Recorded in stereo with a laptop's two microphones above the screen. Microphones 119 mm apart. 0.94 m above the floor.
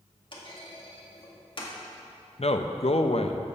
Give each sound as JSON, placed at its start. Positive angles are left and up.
{"t": 0.3, "sound": "a clunk", "side_deg": 45, "distance_m": 1.8}
{"t": 2.4, "sound": "a man speaking", "side_deg": 60, "distance_m": 0.5}